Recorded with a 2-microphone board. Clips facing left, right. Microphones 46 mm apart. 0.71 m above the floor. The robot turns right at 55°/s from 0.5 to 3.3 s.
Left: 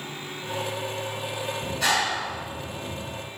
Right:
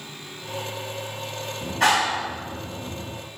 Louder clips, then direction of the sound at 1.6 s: Right 5 dB; 135° right.